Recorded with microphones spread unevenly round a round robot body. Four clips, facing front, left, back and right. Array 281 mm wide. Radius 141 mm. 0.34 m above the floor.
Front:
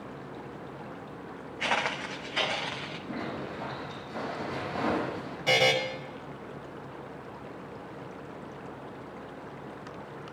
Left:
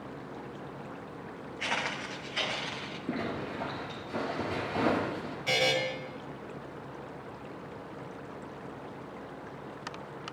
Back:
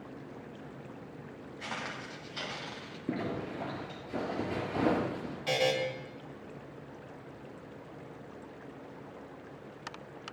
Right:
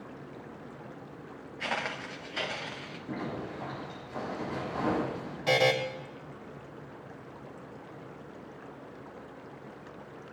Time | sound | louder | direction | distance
1.6 | footsteps | even, front 10 dB | 15° right | 1.9 m
3.1 | a zipper | left 2 dB, back 2 dB | 150° left | 5.5 m
5.5 | a buzzer | right 5 dB, front 4 dB | 55° right | 2.5 m